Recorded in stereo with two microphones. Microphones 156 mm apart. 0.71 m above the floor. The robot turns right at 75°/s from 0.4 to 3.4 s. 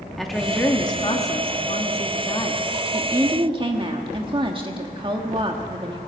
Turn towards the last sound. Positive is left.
turn(degrees=-135)